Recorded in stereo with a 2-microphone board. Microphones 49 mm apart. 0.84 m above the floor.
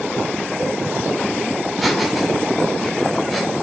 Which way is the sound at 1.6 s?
Centre (ahead or behind).